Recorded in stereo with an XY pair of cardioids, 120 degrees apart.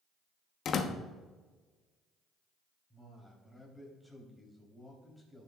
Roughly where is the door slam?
Ahead left.